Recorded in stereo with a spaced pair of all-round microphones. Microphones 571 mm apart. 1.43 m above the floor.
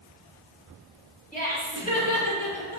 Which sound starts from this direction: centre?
Laughter, at 1.3 s.